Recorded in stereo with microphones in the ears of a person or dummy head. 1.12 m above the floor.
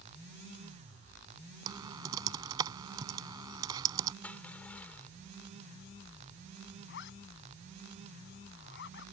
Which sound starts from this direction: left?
A zipper, at 6.9 s.